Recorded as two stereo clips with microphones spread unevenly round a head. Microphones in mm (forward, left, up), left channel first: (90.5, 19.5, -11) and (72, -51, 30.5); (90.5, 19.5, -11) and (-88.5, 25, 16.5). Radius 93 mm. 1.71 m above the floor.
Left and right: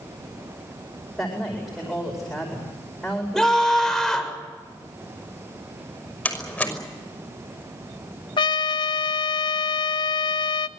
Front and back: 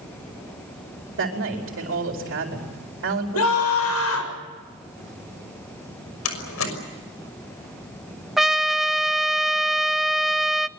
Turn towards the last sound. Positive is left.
turn(degrees=110)